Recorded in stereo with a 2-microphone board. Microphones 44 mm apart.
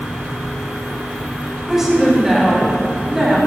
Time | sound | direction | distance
1.7 | a woman speaking | 10° right (ahead or behind) | 3.5 m